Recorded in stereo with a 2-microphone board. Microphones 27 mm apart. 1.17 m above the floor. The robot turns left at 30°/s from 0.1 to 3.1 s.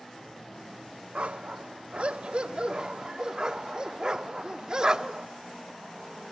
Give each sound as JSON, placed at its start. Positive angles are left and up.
{"t": 1.1, "sound": "a dog barking", "side_deg": -50, "distance_m": 0.9}